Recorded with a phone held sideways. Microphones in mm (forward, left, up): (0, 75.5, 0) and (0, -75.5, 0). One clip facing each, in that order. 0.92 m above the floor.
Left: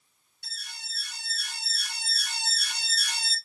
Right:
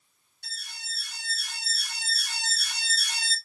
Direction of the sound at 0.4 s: 45° right (ahead or behind).